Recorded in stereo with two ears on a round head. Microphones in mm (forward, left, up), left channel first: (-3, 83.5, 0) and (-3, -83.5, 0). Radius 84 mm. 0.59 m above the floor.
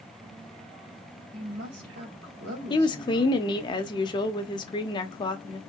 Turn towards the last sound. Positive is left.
turn(degrees=25)  # may be behind; listen again after turning